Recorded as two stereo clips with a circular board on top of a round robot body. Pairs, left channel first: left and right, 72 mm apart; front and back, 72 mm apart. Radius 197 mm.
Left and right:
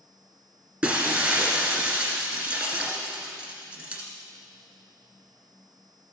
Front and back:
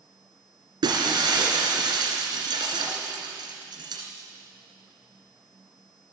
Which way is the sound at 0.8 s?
160° right.